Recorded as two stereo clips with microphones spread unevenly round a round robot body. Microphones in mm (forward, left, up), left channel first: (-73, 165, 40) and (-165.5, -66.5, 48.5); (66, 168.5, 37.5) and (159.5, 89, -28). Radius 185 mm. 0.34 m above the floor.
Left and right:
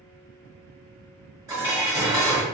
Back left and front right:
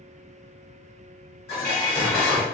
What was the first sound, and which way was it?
Dishes clattering, 170° left.